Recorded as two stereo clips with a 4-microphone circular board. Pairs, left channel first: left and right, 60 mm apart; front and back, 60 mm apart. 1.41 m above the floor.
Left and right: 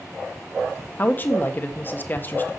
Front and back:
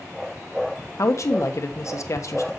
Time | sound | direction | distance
1.0 | a woman speaking | 35° left | 1.2 m